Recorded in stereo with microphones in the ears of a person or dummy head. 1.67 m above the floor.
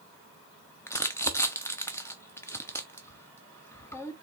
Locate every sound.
0.9 s crumpling: 10° left (ahead or behind), 0.7 m